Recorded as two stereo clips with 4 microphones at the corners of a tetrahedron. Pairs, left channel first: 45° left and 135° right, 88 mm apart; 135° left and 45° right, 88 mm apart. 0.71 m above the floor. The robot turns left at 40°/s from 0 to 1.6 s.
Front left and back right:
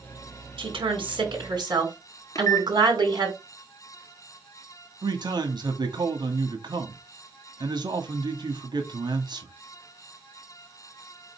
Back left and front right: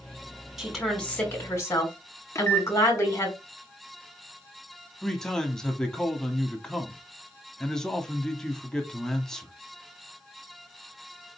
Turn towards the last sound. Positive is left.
turn(degrees=-140)